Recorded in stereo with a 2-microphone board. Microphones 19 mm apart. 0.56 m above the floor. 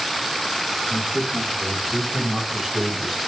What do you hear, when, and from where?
0.9 s a man speaking: 40° right (ahead or behind), 2 m; by 3.2 s centre (ahead or behind), 2.5 m